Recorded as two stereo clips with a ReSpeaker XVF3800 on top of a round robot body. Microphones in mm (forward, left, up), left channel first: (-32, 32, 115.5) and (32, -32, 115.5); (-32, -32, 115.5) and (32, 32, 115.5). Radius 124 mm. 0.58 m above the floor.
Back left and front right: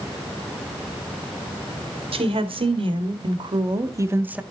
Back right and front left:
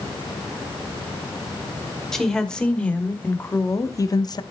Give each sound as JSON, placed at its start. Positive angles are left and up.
{"t": 2.1, "sound": "a woman speaking", "azimuth_deg": -50, "distance_m": 2.5}